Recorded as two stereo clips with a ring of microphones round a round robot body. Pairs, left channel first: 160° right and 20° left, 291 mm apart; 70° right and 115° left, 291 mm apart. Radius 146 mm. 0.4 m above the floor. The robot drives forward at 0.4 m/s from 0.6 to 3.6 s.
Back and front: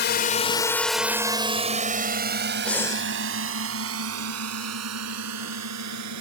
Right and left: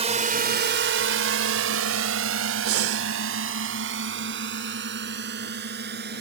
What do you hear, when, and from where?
0.0 s a drone: 170° left; by 6.2 s 55° left
2.6 s breathing: 115° left; by 3.1 s 130° left